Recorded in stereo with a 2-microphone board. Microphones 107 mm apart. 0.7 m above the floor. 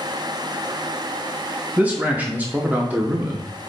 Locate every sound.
1.8 s a man speaking: 15° right (ahead or behind), 0.7 m